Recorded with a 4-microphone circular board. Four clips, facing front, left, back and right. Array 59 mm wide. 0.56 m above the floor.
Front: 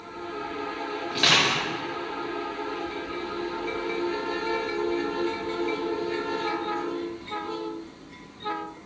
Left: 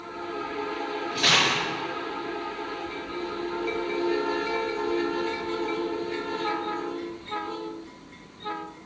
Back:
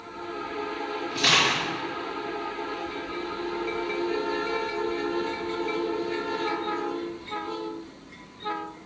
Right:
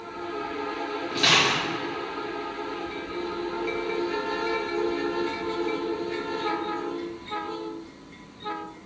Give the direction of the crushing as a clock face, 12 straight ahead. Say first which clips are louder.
Right 1 dB, even; 12 o'clock.